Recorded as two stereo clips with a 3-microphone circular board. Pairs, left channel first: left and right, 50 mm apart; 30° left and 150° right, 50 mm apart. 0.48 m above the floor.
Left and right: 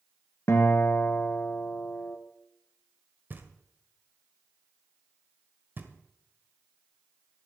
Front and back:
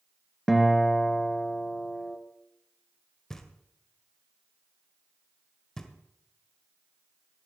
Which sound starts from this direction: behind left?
A guitar, at 0.5 s.